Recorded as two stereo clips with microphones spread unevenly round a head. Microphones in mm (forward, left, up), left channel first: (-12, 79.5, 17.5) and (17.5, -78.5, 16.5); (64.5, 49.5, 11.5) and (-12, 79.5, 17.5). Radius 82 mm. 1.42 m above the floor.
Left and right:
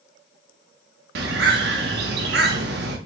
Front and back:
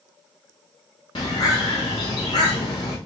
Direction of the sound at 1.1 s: 75° right.